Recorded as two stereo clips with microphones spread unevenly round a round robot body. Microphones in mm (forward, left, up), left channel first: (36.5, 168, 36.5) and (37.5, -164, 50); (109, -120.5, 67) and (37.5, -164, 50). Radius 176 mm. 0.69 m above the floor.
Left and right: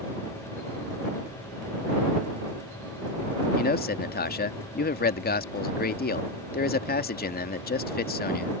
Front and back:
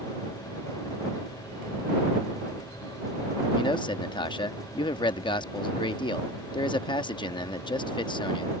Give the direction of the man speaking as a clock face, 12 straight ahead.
11 o'clock.